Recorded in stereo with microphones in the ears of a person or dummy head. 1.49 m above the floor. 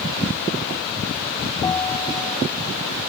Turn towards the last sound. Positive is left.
turn(degrees=10)  # may be behind; listen again after turning